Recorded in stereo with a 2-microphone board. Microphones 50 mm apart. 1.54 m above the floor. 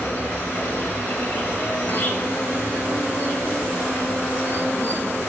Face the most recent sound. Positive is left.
turn(degrees=35)  # may be behind; listen again after turning